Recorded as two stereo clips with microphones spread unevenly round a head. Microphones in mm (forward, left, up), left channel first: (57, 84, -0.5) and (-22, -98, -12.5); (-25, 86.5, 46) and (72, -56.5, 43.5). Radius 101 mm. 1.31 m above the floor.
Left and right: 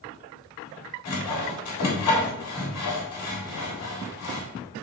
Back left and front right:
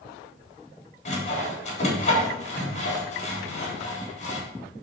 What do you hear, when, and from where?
1.1 s sawing: 75° left, 3.5 m